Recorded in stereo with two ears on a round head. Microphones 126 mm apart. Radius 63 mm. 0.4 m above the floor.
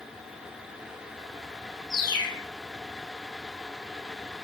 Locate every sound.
1.9 s a bird: 25° left (ahead or behind), 4.5 m